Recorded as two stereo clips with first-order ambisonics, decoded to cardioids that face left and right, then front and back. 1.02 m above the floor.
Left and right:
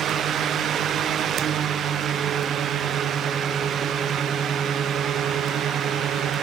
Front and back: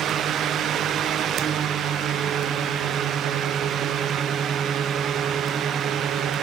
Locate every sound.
Only background noise.